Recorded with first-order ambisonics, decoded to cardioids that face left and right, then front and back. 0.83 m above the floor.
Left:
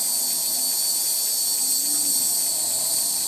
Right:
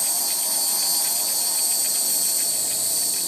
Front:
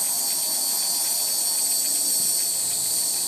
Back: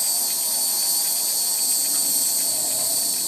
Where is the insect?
145° right, 1.3 m.